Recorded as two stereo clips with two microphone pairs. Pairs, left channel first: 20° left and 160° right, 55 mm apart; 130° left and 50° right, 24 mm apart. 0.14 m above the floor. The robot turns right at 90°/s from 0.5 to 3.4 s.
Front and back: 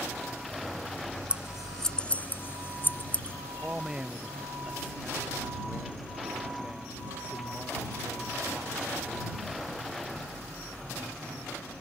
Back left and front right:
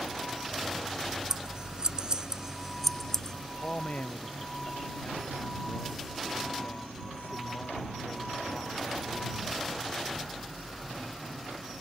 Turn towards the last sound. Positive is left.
turn(degrees=130)